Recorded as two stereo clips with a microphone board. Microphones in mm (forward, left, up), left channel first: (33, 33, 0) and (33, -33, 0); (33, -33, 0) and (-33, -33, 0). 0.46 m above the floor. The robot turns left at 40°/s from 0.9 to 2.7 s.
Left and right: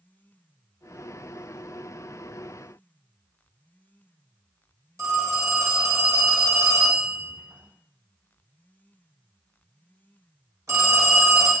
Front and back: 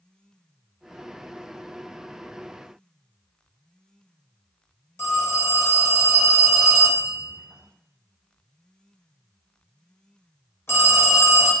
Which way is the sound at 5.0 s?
50° right.